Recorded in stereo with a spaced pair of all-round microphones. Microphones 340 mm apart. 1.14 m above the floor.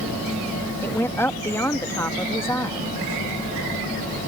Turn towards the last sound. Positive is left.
turn(degrees=5)  # may be behind; listen again after turning